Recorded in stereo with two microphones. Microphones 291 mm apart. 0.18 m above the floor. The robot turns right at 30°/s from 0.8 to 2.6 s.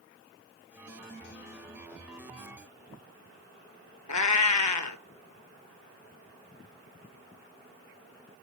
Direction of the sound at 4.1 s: 75° left (ahead or behind).